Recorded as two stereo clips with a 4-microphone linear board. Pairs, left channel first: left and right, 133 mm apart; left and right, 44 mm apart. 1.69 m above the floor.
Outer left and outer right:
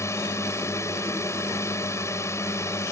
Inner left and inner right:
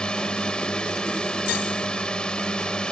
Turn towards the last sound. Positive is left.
turn(degrees=20)  # may be behind; listen again after turning